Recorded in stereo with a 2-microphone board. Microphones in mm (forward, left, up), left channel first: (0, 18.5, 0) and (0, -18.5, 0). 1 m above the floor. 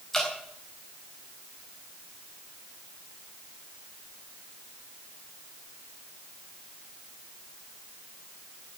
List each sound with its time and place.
0.1 s dripping: 10° left (ahead or behind), 4 m